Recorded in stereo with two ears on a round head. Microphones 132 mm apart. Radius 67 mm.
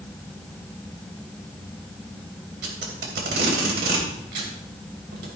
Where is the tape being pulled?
80° right, 3 m.